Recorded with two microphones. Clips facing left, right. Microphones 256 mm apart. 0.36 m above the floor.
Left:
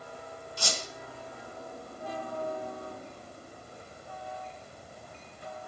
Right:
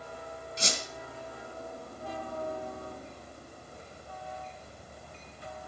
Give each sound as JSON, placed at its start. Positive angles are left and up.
{"t": 0.6, "sound": "a squeak", "side_deg": -25, "distance_m": 2.5}